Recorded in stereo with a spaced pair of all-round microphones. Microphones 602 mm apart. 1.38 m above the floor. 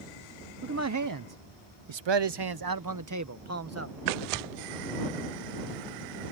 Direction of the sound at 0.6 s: 20° right (ahead or behind).